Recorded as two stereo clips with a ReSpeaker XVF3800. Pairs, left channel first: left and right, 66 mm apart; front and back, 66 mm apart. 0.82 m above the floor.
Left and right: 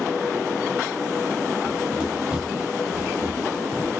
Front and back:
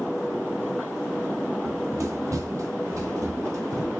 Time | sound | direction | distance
1.6 | running footsteps | straight behind | 1.1 m